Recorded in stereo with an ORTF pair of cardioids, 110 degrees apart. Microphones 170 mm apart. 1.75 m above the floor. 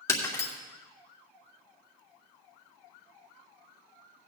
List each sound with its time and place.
0.1 s breaking glass: 15° left, 2.5 m